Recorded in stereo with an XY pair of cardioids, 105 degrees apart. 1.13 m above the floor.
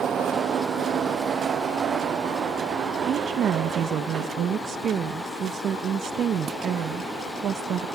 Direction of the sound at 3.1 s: 60° right.